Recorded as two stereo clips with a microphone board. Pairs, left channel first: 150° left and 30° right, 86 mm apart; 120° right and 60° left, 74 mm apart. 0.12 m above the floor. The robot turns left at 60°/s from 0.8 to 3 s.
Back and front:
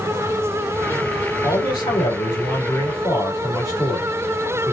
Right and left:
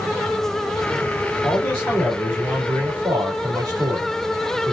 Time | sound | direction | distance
1.4 | a man speaking | 170° right | 4 m